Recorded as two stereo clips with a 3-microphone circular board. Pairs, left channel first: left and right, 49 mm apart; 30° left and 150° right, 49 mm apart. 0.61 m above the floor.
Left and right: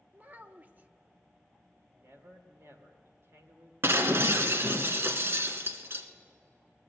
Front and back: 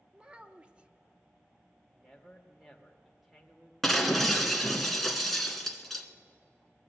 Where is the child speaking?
100° right, 0.6 m.